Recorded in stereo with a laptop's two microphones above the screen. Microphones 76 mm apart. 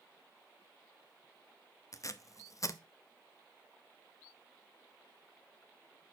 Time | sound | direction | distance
1.9 | tape being pulled | 45° left (ahead or behind) | 0.7 m